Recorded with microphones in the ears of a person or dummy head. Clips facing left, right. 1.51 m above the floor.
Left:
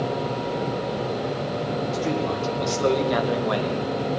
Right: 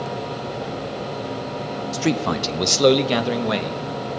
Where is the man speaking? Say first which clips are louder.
Right 6 dB; 65° right (ahead or behind), 0.6 m; by 3.8 s 20° right (ahead or behind), 1.4 m.